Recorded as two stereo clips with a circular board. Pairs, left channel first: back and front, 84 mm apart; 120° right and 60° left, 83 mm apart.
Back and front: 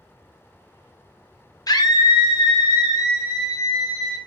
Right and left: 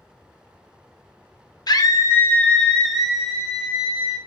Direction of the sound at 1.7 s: 145° right.